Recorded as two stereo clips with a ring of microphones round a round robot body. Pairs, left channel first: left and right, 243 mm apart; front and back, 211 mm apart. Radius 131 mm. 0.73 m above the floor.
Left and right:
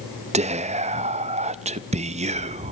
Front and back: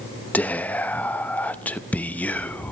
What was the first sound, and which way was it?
Whispering, 75° right.